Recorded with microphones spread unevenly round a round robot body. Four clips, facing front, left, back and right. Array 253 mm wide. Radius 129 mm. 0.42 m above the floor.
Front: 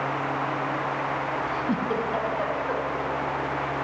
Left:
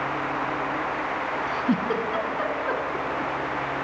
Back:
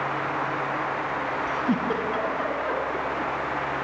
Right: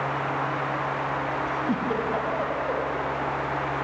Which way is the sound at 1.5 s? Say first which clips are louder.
Left 4 dB, back 3 dB; 120° left.